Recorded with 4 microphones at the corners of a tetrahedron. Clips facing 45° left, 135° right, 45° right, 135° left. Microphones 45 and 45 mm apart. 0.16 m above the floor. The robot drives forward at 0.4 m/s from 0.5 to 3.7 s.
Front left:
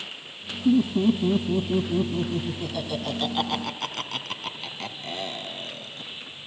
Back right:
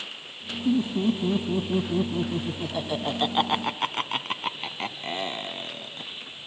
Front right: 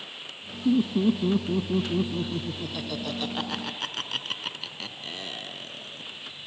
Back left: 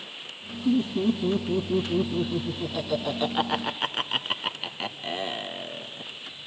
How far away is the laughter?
About 1.1 m.